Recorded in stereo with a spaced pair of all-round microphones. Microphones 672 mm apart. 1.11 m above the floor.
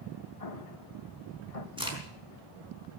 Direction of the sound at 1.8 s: 5° right (ahead or behind).